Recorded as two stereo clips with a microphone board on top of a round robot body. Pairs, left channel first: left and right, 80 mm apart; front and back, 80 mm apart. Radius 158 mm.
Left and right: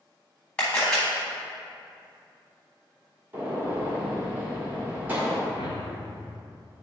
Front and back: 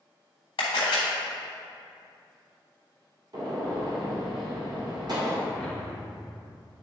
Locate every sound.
0.6 s a camera shutter: 10° left, 0.6 m
3.3 s a gunshot: 155° right, 1.7 m
5.5 s a whoosh: 75° left, 1.0 m